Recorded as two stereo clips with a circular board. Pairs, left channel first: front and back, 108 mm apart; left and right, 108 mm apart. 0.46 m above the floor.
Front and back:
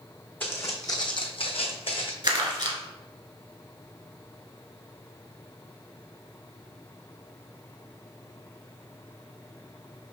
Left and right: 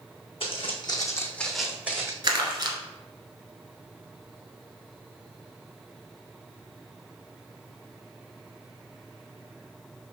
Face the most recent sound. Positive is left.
turn(degrees=-140)